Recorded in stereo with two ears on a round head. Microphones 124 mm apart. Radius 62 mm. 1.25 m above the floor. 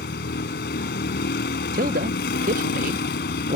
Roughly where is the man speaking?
Right.